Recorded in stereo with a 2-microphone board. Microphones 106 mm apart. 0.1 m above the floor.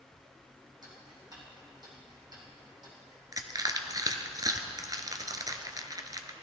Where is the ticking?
40° right (ahead or behind), 5 m.